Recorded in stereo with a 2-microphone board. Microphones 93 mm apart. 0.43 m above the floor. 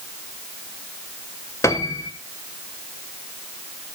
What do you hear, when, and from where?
1.6 s a piano: 30° left (ahead or behind), 1.1 m